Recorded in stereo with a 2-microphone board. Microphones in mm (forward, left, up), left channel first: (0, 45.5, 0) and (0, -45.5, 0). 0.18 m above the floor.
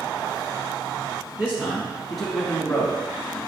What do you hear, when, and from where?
1.4 s a man speaking: 20° right (ahead or behind), 1.2 m; by 3.4 s 25° left (ahead or behind), 1.5 m